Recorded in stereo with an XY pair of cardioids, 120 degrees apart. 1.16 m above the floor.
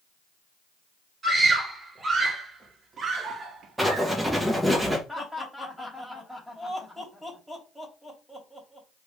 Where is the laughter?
Straight ahead, 2.5 m.